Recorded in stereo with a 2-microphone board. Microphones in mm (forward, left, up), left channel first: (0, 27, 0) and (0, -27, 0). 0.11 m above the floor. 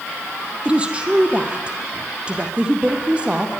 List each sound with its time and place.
0.7 s a woman speaking: 20° right (ahead or behind), 3.5 m